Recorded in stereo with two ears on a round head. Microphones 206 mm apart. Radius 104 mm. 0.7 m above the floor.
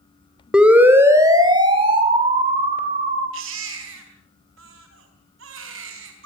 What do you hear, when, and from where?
0.5 s a siren: 5° right (ahead or behind), 2.5 m; by 3.2 s 35° right (ahead or behind), 4 m
3.3 s a baby crying: 60° right (ahead or behind), 4 m